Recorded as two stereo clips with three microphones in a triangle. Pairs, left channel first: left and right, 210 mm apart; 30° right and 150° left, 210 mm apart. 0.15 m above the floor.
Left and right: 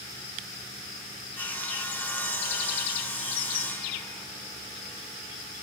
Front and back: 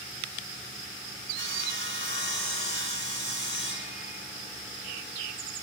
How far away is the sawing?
About 5 m.